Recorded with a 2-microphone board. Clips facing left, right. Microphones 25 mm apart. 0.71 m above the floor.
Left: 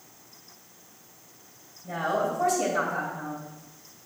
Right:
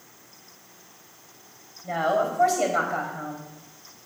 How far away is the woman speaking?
About 3.5 m.